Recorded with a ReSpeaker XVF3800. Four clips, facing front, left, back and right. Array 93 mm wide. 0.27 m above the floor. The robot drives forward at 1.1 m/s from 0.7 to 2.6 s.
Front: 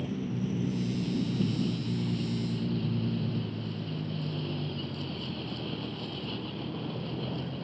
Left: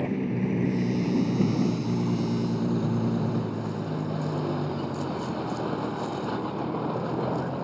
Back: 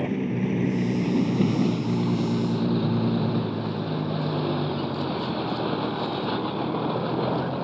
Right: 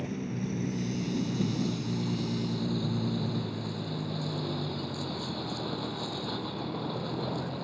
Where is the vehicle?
145° left; by 7.6 s 160° left.